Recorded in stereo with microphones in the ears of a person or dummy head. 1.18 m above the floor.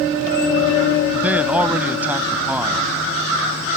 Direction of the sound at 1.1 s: 15° right (ahead or behind).